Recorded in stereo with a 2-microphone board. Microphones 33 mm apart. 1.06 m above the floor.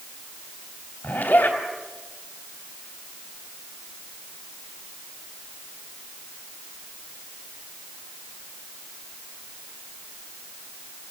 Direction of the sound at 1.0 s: 75° left (ahead or behind).